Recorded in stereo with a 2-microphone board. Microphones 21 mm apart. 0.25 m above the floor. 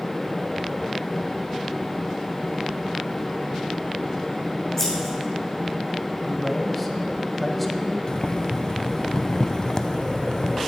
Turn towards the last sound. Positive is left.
turn(degrees=40)  # may be behind; listen again after turning